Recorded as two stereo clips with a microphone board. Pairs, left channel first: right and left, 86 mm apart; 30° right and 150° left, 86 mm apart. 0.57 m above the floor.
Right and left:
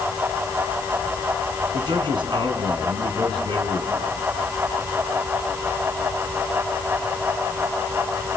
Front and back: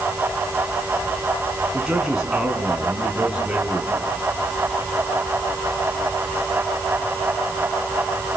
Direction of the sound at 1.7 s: 65° left.